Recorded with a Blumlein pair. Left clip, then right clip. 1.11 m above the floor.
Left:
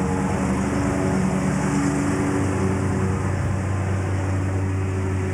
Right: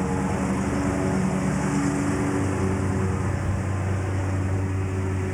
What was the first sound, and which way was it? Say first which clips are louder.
A lawn mower: left 2 dB; 10° left.